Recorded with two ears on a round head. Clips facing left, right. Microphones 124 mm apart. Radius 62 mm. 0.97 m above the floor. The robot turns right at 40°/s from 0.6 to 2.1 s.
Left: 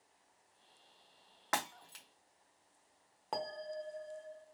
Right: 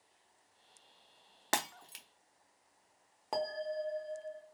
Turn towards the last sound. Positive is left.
turn(degrees=-5)  # may be behind; listen again after turning